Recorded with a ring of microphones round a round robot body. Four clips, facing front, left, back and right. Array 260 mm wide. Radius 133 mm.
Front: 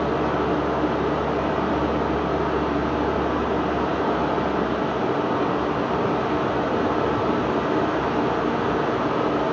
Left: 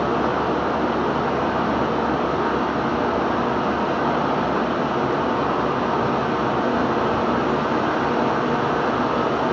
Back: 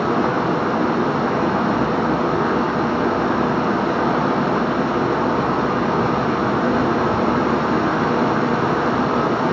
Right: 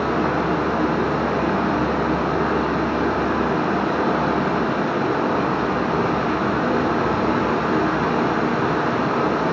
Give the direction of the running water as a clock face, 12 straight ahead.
5 o'clock.